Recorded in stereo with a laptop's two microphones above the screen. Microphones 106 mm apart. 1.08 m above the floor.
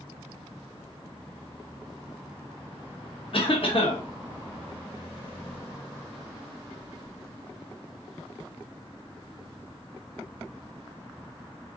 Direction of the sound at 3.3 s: 55° left (ahead or behind).